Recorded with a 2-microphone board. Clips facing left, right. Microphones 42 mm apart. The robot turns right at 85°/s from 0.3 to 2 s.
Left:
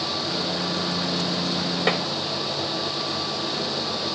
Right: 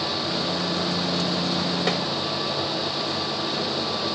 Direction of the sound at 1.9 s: 30° left (ahead or behind).